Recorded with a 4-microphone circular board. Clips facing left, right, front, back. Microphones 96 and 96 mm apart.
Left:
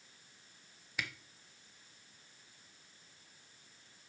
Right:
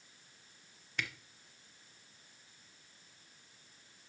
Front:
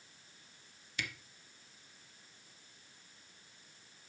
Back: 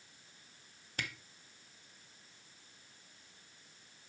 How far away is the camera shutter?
About 0.9 m.